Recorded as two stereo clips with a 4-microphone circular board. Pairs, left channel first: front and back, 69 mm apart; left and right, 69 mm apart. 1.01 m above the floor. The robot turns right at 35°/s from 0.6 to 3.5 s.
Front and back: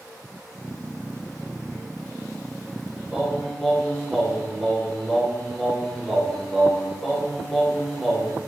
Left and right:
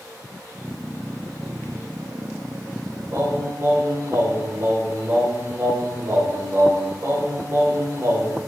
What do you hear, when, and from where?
3.1 s singing: 100° right, 0.6 m; by 8.4 s 85° right, 0.6 m